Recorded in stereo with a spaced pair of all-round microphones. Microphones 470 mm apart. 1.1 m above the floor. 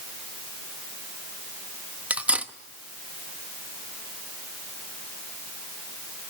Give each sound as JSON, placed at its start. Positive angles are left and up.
{"t": 2.1, "sound": "cutlery clinking", "side_deg": -5, "distance_m": 0.7}